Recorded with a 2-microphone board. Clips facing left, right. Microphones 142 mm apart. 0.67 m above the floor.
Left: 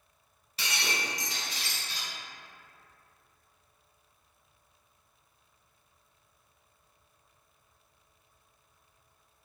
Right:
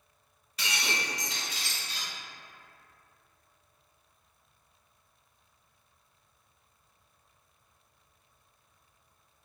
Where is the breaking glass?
30° left (ahead or behind), 1.4 m.